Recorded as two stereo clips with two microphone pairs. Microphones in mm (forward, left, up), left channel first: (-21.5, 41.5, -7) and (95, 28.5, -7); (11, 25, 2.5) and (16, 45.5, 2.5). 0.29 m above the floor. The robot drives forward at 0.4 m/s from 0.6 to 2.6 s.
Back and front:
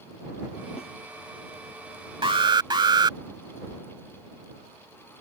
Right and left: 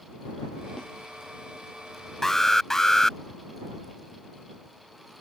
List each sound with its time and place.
0.8 s a snare drum: 155° right
2.2 s an alarm: 35° right; by 3.2 s 40° right